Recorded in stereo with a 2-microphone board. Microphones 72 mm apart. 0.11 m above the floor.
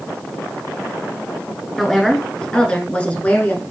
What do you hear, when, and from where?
1.8 s a woman speaking: 5° left (ahead or behind), 1.3 m; by 3.6 s 25° left (ahead or behind), 1.3 m